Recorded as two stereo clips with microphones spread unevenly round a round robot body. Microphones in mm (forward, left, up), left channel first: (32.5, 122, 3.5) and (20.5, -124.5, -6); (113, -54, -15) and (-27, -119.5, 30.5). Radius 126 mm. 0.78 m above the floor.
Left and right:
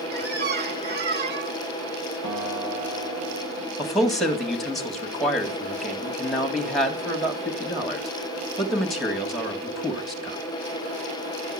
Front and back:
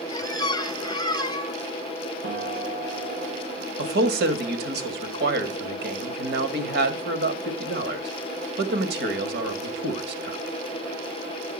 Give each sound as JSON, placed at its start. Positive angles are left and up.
{"t": 0.1, "sound": "a squeak", "azimuth_deg": -50, "distance_m": 1.4}
{"t": 2.2, "sound": "a piano", "azimuth_deg": -125, "distance_m": 2.0}
{"t": 3.8, "sound": "a man speaking", "azimuth_deg": 180, "distance_m": 1.8}